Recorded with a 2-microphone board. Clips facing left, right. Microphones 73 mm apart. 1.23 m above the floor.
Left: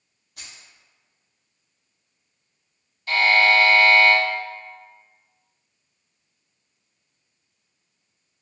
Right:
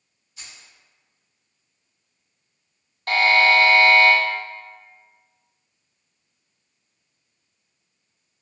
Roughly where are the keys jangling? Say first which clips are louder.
Even; left.